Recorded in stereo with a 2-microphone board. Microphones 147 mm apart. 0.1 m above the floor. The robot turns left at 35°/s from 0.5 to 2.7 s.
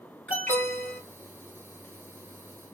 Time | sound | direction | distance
0.3 | an alarm | 10° left (ahead or behind) | 2.5 m